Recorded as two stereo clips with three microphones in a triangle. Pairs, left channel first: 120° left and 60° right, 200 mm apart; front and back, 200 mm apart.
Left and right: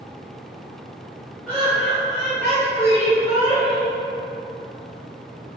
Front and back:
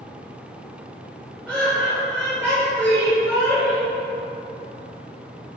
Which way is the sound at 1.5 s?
65° left.